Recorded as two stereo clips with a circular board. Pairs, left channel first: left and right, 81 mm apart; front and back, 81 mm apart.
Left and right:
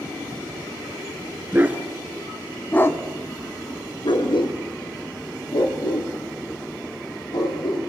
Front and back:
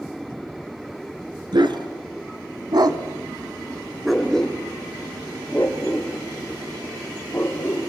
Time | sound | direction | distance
1.5 | a dog barking | 155° right | 2 m